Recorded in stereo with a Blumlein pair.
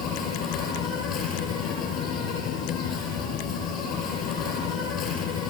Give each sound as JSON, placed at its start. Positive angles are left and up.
{"t": 0.0, "sound": "an insect", "azimuth_deg": 35, "distance_m": 5.0}